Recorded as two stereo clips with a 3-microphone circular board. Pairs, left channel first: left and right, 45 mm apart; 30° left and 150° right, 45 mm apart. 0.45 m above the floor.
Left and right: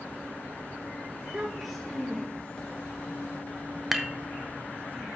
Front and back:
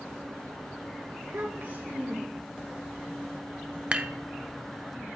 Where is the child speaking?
150° right, 0.8 m; by 2.6 s 165° left, 2 m.